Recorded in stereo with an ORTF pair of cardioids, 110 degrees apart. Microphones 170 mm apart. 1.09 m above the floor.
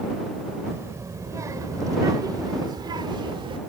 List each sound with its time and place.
0.7 s a child speaking: 15° right; by 3.6 s 30° right